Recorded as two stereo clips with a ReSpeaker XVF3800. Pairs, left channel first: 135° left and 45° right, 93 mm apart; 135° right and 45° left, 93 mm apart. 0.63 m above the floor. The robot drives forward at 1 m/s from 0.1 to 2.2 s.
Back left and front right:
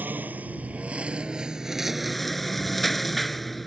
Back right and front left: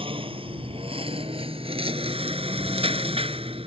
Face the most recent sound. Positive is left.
turn(degrees=45)